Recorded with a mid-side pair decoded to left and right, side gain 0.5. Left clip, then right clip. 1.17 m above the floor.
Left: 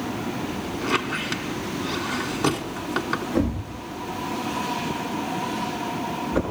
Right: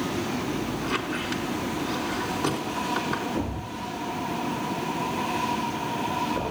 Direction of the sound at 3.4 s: 65° left.